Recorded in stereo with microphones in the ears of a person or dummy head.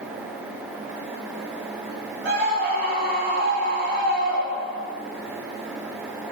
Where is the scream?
60° right (ahead or behind), 4.5 m.